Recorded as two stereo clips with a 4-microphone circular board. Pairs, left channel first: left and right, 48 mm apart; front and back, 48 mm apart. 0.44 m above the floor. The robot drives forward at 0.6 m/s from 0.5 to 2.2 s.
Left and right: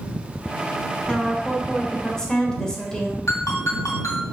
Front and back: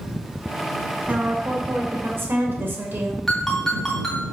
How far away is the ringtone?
About 3 m.